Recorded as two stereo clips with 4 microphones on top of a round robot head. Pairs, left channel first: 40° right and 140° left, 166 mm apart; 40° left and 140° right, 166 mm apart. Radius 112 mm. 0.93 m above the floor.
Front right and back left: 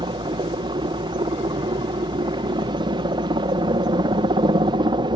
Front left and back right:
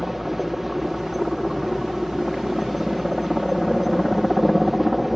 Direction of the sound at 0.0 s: 135° left.